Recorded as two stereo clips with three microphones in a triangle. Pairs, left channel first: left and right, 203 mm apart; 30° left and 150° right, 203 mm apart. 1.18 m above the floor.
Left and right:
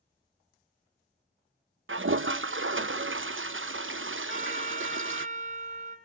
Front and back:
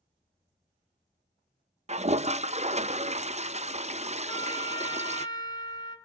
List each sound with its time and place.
1.9 s a toilet flushing: 90° right, 0.6 m
4.3 s a trumpet: 40° right, 3.5 m